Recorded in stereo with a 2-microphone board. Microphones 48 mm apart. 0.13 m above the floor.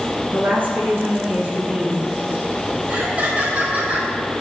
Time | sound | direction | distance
0.3 | a woman speaking | 35° right (ahead or behind) | 3 m
2.9 | laughter | 25° right (ahead or behind) | 1.2 m